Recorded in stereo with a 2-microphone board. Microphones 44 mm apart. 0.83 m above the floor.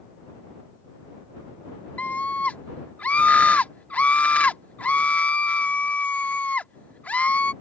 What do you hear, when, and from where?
2.0 s a scream: 35° left (ahead or behind)